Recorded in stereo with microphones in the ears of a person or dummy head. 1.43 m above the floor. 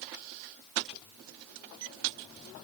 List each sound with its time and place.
Only background noise.